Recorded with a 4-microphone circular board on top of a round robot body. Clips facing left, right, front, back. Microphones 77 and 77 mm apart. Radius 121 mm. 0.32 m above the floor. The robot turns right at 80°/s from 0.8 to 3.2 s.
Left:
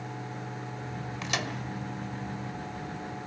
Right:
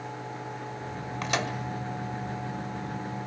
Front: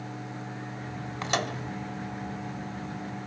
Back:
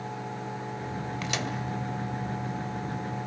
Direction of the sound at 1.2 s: 50° right.